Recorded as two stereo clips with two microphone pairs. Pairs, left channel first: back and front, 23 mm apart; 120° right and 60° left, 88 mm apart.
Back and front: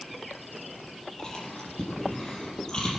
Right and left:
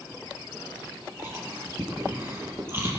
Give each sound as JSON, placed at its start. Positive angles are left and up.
{"t": 1.2, "sound": "chewing", "azimuth_deg": 120, "distance_m": 5.0}